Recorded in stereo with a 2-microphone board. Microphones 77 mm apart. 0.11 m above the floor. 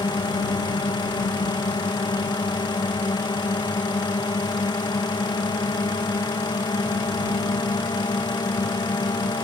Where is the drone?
80° left.